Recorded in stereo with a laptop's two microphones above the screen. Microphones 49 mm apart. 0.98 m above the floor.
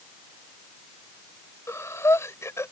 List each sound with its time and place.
1.7 s breathing: 75° left (ahead or behind)